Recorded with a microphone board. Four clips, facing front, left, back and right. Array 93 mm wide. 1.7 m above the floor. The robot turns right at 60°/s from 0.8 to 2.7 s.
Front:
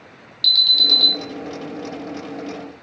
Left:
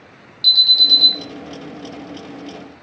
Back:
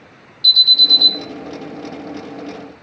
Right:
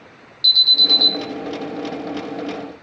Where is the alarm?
5° left, 1.1 m; by 1.1 s 20° left, 1.1 m.